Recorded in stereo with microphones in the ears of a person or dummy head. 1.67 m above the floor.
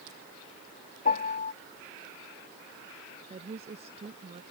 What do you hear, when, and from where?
1.1 s a piano: 45° left (ahead or behind)
3.3 s a woman speaking: 40° right (ahead or behind)